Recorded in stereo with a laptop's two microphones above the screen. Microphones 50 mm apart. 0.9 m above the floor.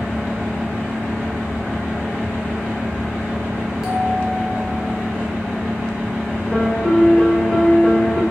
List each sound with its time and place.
0.0 s a fan: 25° left (ahead or behind), 0.8 m
3.8 s a bell: 5° right (ahead or behind), 0.9 m
6.5 s a piano: 20° left (ahead or behind), 0.6 m